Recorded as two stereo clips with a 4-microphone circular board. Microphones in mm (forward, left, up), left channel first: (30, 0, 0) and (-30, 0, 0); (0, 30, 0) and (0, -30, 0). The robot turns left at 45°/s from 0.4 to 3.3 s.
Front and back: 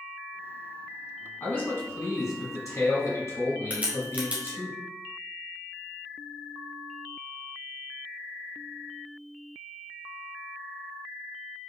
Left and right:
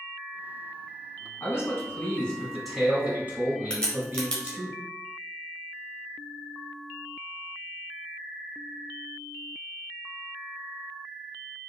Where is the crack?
150° left, 1.4 m.